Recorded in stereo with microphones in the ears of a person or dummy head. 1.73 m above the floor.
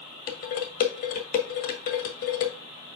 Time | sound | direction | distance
0.3 | dishes clattering | 55° left (ahead or behind) | 1.8 m